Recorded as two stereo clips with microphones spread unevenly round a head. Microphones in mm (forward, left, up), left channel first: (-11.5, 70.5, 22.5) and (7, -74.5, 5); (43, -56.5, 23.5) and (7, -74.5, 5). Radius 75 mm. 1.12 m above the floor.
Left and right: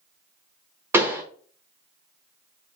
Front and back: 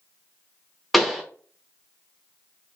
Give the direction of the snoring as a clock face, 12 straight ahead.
I don't hear snoring.